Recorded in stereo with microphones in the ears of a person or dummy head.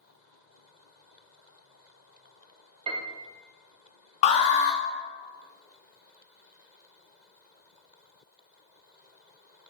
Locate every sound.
2.9 s a piano: 30° right (ahead or behind), 0.5 m
4.2 s an alarm: 40° left (ahead or behind), 0.6 m